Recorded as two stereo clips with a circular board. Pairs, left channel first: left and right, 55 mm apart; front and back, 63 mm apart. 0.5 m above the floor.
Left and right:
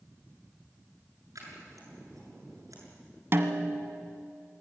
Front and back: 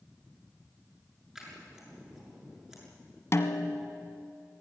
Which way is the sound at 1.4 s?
100° right.